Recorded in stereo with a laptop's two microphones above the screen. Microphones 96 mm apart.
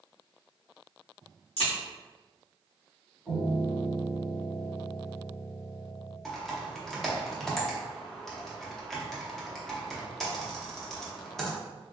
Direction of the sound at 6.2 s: 5° left (ahead or behind).